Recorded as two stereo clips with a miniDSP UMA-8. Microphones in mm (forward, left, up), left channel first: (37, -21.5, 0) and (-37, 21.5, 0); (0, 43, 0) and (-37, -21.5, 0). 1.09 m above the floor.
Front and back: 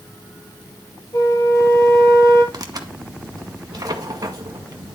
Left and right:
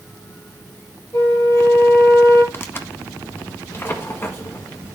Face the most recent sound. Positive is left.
turn(degrees=115)